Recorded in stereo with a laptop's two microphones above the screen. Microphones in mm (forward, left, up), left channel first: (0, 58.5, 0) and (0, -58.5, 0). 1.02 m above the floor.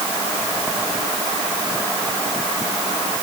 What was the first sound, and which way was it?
Only background noise.